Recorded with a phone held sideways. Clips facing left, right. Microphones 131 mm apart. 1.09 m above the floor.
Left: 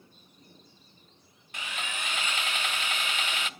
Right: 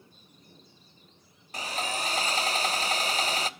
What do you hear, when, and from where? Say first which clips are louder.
1.5 s sawing: right 6 dB; 35° right (ahead or behind), 0.7 m